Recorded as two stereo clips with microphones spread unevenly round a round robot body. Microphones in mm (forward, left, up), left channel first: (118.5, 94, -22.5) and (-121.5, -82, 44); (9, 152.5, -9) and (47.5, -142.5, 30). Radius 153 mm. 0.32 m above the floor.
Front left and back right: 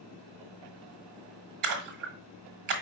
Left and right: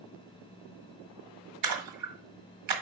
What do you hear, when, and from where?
1.6 s a splash: 115° right, 1.5 m